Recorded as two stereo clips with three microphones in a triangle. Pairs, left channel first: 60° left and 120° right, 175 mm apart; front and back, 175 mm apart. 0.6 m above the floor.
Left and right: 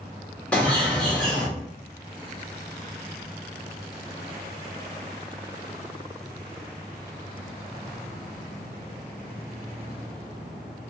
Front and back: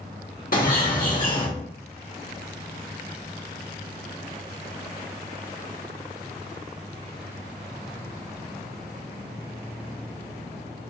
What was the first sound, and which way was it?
A bird, 20° right.